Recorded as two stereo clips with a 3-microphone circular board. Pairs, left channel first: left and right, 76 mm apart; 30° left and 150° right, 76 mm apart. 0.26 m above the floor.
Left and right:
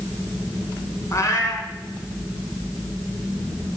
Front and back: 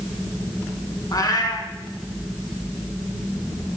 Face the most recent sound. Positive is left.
turn(degrees=50)